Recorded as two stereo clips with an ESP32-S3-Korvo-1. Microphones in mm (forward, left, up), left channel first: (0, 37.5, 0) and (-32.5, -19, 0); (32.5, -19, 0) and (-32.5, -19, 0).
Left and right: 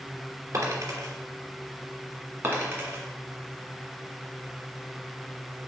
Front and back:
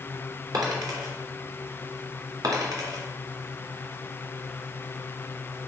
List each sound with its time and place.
0.5 s a dropped coin: 165° right, 3 m
2.4 s a dropped coin: 175° right, 2.0 m